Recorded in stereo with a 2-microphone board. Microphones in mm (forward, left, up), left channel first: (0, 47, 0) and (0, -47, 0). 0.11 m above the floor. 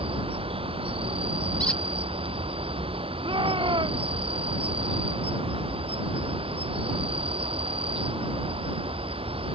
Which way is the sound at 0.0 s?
85° right.